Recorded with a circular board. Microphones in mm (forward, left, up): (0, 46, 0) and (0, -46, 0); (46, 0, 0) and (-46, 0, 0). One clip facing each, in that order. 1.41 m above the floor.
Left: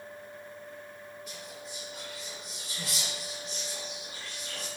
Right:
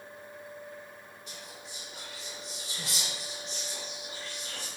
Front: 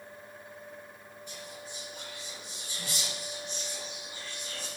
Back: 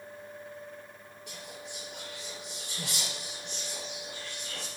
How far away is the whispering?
About 0.5 m.